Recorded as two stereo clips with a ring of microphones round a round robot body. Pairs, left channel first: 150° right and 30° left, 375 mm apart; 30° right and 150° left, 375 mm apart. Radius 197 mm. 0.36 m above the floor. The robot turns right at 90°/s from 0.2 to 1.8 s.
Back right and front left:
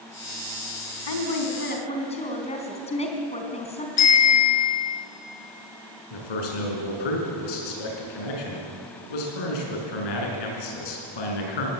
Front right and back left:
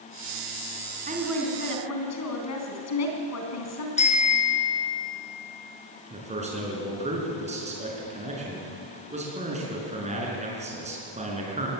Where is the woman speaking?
145° right, 3.5 m; by 3.9 s 75° right, 3.5 m.